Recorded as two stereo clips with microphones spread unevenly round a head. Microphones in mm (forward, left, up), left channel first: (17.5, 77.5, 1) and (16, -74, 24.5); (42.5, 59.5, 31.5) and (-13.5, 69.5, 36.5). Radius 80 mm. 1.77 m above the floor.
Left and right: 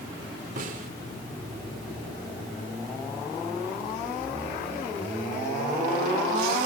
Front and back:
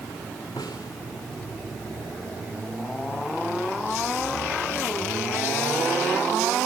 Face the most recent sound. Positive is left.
turn(degrees=-60)